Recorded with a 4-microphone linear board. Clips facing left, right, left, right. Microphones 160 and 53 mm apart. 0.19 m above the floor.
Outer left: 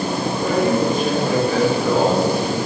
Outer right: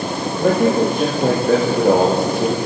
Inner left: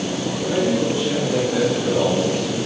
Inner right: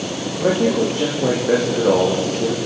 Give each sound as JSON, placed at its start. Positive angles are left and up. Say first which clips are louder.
{"t": 0.4, "sound": "a man speaking", "louder": "outer right 4 dB, inner right 4 dB", "side_deg": -55, "distance_m": 9.0}